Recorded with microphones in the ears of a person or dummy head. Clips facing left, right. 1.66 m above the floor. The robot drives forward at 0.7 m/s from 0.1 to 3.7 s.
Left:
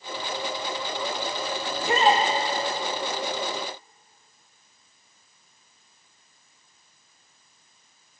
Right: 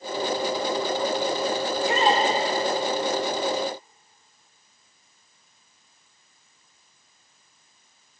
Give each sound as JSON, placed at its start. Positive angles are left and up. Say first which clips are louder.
{"t": 1.7, "sound": "a shout", "louder": "left 2 dB", "side_deg": 55, "distance_m": 5.0}